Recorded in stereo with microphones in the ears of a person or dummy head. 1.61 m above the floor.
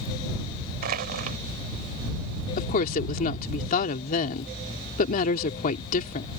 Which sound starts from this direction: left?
A woman speaking, at 2.6 s.